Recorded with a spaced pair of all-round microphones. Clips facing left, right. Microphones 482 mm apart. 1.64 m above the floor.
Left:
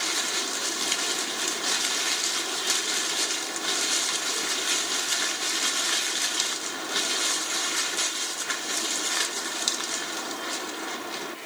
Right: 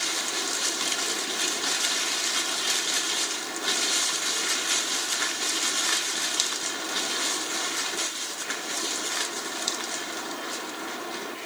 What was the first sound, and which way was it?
Only background noise.